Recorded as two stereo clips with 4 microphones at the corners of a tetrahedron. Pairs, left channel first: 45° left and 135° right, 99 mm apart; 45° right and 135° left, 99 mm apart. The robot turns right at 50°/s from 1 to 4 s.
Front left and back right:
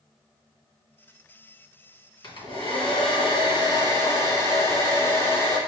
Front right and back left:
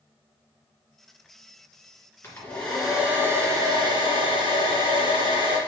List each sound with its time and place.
2.2 s a hair dryer: 20° left, 2 m; by 5.6 s 105° left, 2 m